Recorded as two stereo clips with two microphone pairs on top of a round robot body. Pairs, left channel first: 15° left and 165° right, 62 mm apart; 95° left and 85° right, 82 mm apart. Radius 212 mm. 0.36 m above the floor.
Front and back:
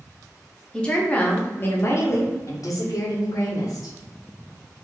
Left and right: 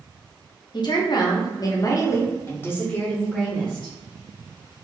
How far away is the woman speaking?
About 1.4 m.